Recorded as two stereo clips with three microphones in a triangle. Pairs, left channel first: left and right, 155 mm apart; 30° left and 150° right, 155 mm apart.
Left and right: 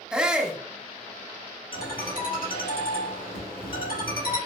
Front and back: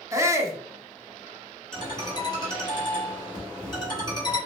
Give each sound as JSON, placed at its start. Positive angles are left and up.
{"t": 0.1, "sound": "a shout", "azimuth_deg": -165, "distance_m": 0.5}
{"t": 1.7, "sound": "a ringtone", "azimuth_deg": 90, "distance_m": 1.6}